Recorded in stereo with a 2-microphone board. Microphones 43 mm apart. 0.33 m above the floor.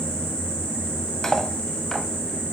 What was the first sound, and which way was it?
Cutlery clinking, 10° left (ahead or behind).